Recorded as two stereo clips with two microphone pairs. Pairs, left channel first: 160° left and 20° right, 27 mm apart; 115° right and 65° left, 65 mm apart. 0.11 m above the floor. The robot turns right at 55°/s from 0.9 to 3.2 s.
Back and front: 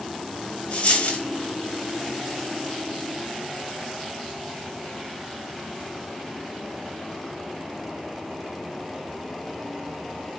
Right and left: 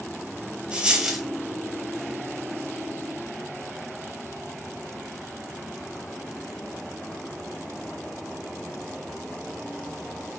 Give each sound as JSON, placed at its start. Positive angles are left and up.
{"t": 0.7, "sound": "a dropped coin", "azimuth_deg": 140, "distance_m": 0.9}